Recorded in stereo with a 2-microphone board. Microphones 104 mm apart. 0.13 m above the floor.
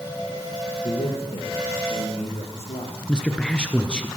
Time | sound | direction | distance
0.8 | a man speaking | 70° left (ahead or behind) | 7.5 m
3.1 | a man speaking | 10° left (ahead or behind) | 2.5 m